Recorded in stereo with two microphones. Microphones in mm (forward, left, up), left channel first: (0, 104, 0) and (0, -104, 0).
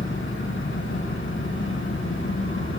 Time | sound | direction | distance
0.0 | an engine running | 80° left | 3 m